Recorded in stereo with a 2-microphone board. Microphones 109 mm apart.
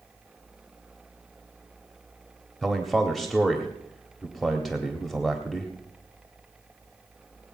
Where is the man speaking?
Centre (ahead or behind), 1.4 m.